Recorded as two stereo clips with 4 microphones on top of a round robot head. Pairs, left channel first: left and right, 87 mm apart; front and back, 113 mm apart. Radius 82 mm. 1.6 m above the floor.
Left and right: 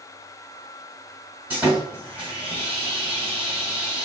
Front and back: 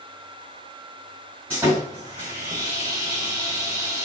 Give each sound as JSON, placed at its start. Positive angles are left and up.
{"t": 1.5, "sound": "sawing", "azimuth_deg": -135, "distance_m": 1.4}